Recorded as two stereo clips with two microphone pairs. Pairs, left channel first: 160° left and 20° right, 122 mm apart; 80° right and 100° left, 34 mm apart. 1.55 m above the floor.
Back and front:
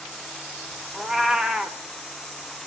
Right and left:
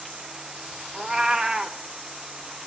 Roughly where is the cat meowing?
Ahead left.